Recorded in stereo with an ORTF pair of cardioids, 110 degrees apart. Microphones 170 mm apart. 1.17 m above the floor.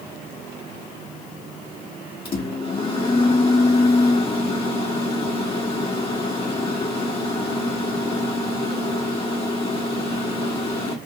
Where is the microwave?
35° left, 1.3 m.